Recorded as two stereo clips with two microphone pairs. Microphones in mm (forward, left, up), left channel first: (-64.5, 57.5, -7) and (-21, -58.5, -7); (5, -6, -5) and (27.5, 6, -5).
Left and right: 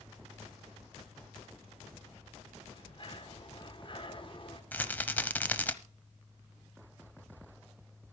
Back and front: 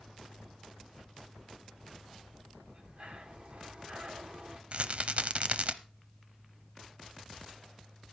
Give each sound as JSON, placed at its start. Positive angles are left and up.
{"t": 2.7, "sound": "breathing", "azimuth_deg": 70, "distance_m": 1.8}
{"t": 4.7, "sound": "a rattle", "azimuth_deg": 40, "distance_m": 0.8}